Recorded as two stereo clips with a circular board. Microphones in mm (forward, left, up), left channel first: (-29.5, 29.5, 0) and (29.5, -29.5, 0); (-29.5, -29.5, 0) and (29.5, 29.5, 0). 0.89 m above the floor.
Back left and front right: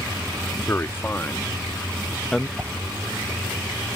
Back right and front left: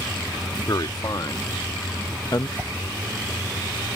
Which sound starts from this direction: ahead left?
A whoosh, at 2.6 s.